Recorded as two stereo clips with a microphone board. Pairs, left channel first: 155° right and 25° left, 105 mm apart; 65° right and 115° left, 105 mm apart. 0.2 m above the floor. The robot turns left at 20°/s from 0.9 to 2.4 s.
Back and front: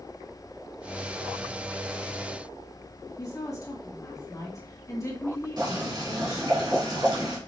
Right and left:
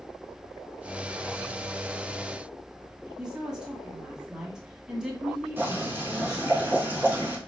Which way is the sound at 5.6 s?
50° left.